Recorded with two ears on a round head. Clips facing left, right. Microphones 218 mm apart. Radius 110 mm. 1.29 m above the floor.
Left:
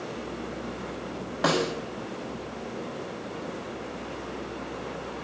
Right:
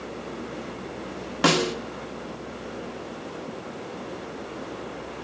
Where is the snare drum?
40° right (ahead or behind), 1.0 m.